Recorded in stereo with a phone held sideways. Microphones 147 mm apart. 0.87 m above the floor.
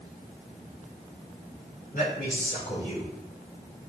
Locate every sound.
1.9 s a man speaking: 65° left (ahead or behind), 4 m; by 3.1 s 50° left (ahead or behind), 4 m